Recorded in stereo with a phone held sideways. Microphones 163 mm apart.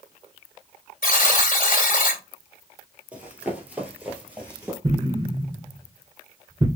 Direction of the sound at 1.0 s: 65° left (ahead or behind).